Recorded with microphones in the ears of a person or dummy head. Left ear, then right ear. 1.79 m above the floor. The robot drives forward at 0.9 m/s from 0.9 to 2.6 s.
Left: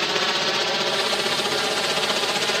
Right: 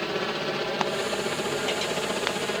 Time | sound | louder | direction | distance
0.0 | a helicopter | left 7 dB | 45° left (ahead or behind) | ?